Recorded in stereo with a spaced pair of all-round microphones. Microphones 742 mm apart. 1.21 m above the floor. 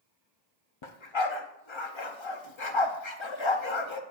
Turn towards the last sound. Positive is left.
turn(degrees=40)  # may be behind; listen again after turning